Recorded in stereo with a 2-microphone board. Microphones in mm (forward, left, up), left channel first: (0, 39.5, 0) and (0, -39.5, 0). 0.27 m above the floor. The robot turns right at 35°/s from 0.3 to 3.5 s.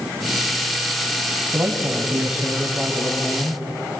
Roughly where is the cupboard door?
No cupboard door in this recording.